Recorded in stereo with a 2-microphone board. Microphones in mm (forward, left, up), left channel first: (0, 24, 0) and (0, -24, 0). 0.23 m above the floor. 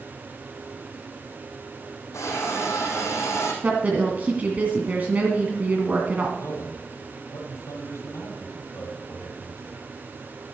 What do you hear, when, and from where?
2.1 s a hiss: 80° left, 4.5 m
3.6 s a woman speaking: 30° right (ahead or behind), 2.0 m
6.4 s a man speaking: 75° left (ahead or behind), 6.5 m